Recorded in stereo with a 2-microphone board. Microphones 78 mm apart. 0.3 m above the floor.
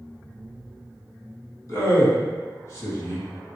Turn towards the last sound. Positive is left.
turn(degrees=45)  # may be behind; listen again after turning